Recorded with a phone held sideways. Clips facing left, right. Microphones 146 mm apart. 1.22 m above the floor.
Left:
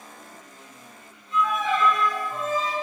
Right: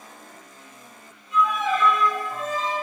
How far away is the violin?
About 1.3 m.